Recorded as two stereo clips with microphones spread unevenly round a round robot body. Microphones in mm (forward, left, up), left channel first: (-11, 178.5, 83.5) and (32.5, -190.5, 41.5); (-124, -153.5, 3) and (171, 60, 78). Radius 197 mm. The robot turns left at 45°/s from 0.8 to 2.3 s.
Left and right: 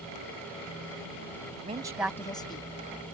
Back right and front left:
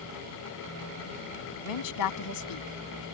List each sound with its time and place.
1.6 s a woman speaking: 150° right; by 2.7 s straight behind